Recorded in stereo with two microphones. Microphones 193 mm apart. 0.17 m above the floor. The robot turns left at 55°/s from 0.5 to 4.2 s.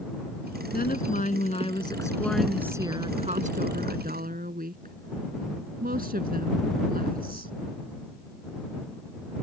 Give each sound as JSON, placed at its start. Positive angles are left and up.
{"t": 0.7, "sound": "a woman speaking", "azimuth_deg": 90}